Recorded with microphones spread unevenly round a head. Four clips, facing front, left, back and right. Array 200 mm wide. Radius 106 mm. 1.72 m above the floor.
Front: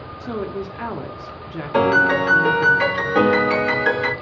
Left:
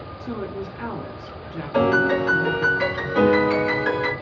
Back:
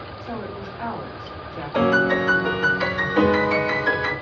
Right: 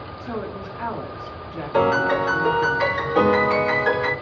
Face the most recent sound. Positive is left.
turn(degrees=-5)